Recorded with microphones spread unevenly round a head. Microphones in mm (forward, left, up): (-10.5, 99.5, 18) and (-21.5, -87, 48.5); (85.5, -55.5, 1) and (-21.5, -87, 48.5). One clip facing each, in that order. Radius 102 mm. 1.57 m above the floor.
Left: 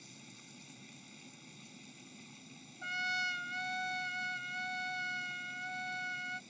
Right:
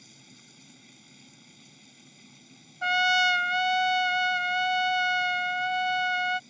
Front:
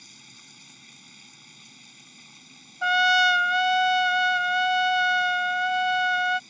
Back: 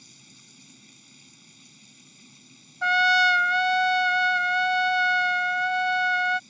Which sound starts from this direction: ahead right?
A trumpet, at 2.8 s.